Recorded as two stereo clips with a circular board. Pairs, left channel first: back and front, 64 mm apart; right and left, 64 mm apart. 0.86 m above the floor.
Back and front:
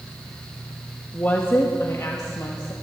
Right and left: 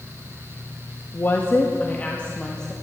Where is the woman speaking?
125° right, 1.1 m; by 2.7 s 165° right, 1.5 m.